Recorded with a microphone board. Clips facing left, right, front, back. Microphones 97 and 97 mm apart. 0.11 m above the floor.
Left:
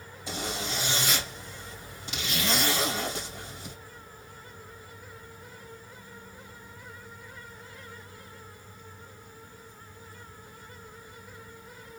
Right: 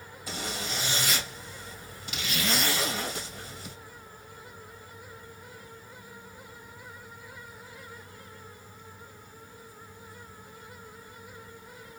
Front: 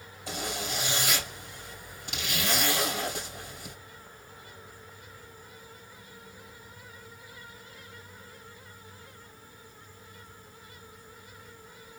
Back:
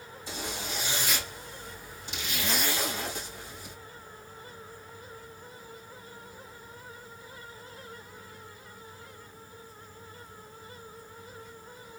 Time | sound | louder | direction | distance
0.3 | a zipper | left 2 dB, front 3 dB | 25° left | 3 m